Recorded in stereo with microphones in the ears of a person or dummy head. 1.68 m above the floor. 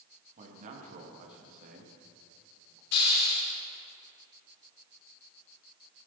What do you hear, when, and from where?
0.4 s a man speaking: 40° right (ahead or behind), 3 m
2.9 s a hiss: 65° left (ahead or behind), 3 m